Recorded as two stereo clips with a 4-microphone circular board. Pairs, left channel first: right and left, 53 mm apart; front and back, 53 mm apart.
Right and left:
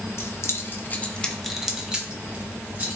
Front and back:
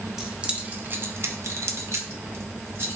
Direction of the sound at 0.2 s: 100° right.